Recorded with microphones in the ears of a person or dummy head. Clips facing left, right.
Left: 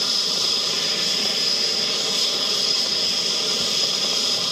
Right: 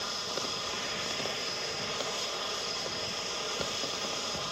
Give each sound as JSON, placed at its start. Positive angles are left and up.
{"t": 0.0, "sound": "an aircraft", "side_deg": 50}